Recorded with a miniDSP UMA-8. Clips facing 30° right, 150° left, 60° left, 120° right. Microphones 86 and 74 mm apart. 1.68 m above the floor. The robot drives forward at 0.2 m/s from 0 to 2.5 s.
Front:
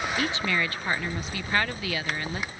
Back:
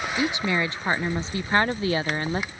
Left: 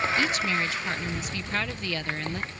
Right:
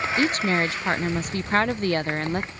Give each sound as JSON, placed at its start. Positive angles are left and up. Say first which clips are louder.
{"t": 0.2, "sound": "a woman speaking", "louder": "back 5 dB, right 4 dB", "azimuth_deg": -145}